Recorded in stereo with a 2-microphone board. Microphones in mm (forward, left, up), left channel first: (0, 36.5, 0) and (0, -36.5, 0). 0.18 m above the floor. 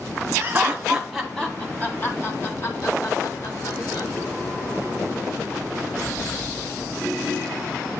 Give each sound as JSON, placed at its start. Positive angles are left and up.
{"t": 0.4, "sound": "laughter", "side_deg": -30, "distance_m": 1.5}